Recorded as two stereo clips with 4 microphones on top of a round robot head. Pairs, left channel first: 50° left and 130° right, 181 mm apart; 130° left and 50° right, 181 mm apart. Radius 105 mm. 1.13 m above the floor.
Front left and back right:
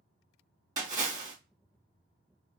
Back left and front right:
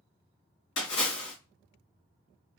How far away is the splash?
About 1.8 m.